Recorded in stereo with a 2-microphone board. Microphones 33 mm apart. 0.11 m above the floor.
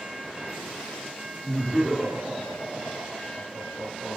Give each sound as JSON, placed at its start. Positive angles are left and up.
{"t": 1.4, "sound": "laughter", "side_deg": 20, "distance_m": 1.5}